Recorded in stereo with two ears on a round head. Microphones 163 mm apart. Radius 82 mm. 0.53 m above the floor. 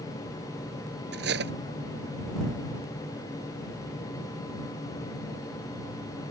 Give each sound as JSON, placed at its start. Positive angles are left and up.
{"t": 1.1, "sound": "cutlery clinking", "side_deg": -60}